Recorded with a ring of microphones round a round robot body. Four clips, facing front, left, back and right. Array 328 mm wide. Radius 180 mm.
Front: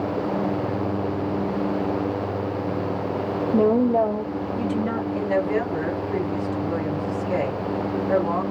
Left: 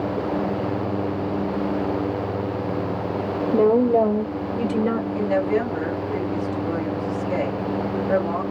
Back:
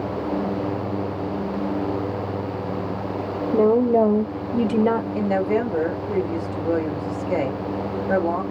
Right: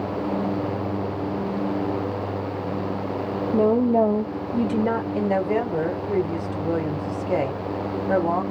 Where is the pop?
No pop in this recording.